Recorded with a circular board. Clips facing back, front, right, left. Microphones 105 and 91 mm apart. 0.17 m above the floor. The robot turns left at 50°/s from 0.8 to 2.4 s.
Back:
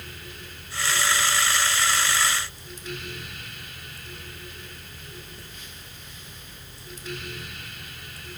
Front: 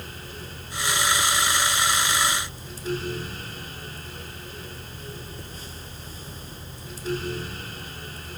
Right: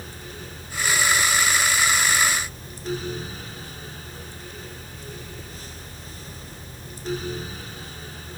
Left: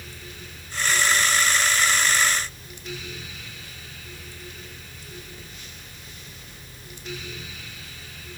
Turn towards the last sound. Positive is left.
No sound to turn to.